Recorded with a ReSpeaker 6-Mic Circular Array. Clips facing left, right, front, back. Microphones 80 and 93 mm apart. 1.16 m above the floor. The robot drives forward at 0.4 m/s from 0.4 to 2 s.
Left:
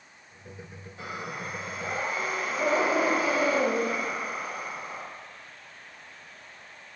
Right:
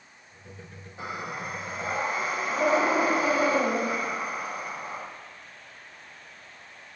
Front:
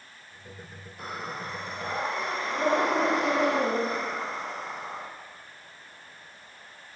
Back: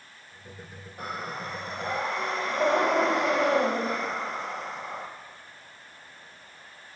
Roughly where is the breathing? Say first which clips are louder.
Right 2 dB, back 1 dB; behind right.